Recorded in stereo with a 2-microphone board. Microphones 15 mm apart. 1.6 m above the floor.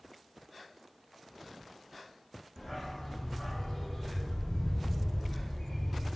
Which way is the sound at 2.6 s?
Centre (ahead or behind).